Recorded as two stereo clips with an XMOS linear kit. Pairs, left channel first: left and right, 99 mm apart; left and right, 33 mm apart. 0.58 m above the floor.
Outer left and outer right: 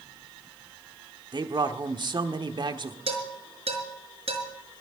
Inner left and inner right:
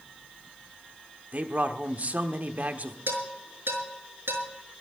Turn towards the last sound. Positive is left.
turn(degrees=-85)